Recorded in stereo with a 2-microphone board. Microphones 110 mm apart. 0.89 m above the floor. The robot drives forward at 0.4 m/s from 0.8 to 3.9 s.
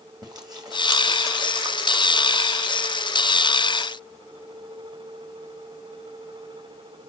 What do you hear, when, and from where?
0.2 s chewing: 40° right (ahead or behind), 1.8 m; by 2.4 s 30° right (ahead or behind), 2 m